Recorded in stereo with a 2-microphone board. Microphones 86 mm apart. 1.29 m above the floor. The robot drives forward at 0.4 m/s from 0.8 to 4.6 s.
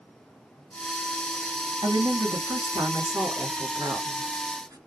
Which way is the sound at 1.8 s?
60° right (ahead or behind).